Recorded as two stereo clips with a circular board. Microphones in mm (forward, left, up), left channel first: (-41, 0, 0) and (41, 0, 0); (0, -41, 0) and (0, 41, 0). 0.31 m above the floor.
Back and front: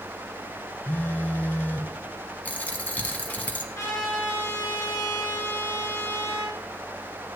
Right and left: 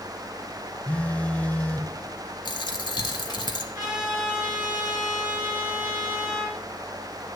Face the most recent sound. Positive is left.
turn(degrees=130)